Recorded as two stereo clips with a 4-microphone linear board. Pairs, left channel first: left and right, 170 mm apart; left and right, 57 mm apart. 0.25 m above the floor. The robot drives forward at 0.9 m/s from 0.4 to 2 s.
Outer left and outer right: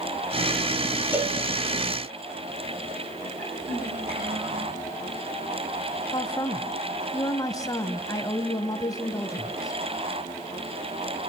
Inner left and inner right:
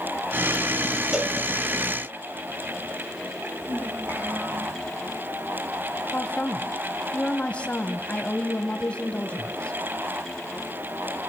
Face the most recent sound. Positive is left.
turn(degrees=20)  # may be behind; listen again after turning